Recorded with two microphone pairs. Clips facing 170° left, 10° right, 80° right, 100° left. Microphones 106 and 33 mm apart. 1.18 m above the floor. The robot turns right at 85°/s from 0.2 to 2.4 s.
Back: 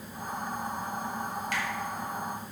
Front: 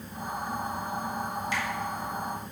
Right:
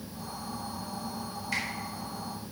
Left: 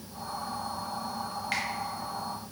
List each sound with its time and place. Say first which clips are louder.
1.5 s a finger snap: front 1 dB, even; 130° left, 2 m; by 1.6 s 140° left, 2 m